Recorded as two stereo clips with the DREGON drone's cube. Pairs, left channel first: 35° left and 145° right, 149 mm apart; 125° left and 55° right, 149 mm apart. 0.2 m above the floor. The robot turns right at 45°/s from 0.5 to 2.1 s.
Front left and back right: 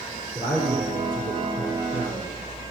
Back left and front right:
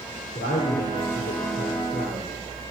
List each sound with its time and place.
0.3 s a man speaking: 115° left, 4 m; by 2.3 s 170° right, 4 m